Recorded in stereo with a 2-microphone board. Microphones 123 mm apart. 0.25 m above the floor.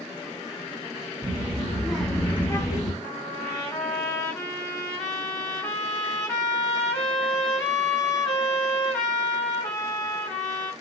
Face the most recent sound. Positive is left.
turn(degrees=10)  # may be behind; listen again after turning